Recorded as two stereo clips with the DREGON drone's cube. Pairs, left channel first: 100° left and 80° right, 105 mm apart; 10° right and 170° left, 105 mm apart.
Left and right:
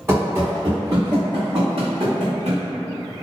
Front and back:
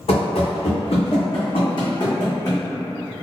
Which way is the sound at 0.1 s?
10° right.